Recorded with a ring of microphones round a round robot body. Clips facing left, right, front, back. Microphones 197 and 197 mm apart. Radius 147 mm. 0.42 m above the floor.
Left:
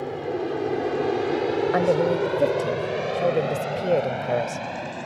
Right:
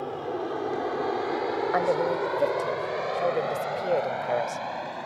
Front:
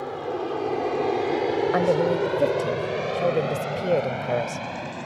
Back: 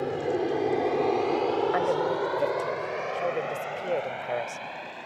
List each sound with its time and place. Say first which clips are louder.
0.0 s an aircraft: left 4 dB, back 2 dB; 150° left; by 5.1 s 30° left
1.7 s a woman speaking: left 4 dB, front 5 dB; 40° left